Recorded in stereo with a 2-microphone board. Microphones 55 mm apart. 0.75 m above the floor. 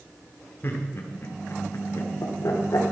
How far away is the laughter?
About 1.8 m.